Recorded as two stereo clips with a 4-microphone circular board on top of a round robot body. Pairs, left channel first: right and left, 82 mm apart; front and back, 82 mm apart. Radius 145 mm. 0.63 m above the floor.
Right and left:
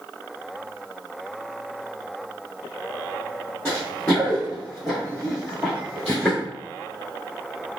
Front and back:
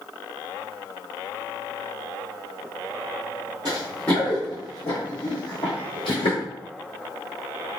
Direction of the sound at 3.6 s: 165° right.